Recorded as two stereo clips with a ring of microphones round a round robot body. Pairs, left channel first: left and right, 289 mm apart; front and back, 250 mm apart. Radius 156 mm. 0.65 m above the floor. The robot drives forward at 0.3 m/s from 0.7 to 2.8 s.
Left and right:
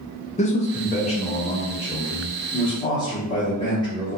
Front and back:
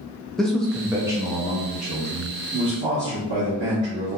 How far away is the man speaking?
About 0.6 m.